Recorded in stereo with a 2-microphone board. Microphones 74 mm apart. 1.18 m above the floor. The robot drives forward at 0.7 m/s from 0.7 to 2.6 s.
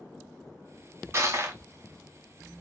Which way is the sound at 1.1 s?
35° right (ahead or behind).